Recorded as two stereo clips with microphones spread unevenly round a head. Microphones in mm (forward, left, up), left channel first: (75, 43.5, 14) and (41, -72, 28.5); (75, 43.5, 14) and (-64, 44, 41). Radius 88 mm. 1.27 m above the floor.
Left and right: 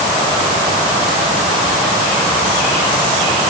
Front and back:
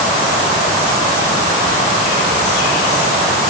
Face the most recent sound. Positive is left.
No sound to turn to.